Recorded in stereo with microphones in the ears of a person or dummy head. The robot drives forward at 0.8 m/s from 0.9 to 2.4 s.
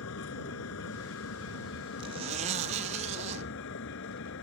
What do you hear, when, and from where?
0.0 s a vehicle: 75° left (ahead or behind); by 4.4 s 65° left (ahead or behind)
2.0 s a zipper: 30° right (ahead or behind); by 3.5 s 35° right (ahead or behind)